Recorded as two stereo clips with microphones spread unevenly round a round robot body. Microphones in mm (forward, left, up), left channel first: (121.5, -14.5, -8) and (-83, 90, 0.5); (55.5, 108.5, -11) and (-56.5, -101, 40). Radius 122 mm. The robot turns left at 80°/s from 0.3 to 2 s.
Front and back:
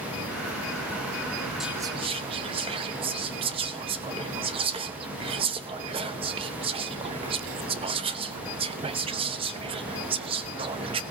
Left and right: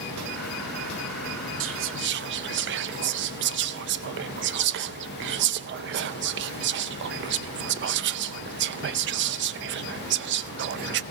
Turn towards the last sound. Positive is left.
turn(degrees=-150)